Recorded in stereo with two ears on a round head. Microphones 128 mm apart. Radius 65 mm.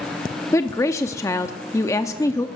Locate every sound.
0.5 s a woman speaking: 20° left (ahead or behind), 0.5 m